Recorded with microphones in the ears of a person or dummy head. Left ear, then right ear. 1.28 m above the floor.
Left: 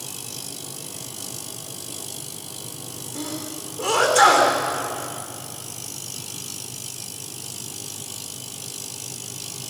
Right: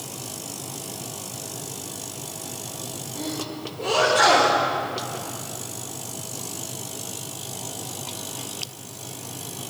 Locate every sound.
3.1 s a sneeze: 40° left (ahead or behind), 4 m